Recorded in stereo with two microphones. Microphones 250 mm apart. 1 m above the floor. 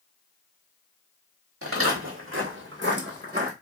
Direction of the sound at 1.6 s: 60° right (ahead or behind).